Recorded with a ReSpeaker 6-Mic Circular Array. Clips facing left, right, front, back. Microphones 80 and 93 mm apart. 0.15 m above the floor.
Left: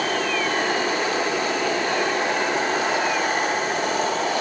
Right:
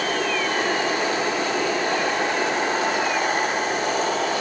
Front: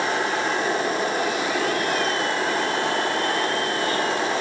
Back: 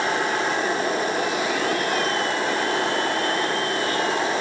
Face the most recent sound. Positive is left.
No sound to turn to.